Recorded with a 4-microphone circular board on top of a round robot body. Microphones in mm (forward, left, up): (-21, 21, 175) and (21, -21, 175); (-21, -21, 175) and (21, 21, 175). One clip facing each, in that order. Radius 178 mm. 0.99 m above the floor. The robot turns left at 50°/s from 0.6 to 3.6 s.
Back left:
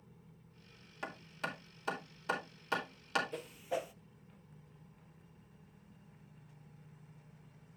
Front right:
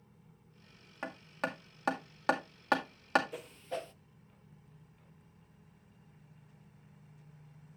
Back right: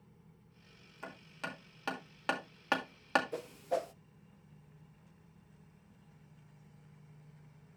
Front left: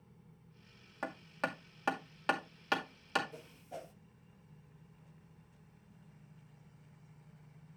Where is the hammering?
15° left, 2 m; by 3.2 s 95° right, 2 m.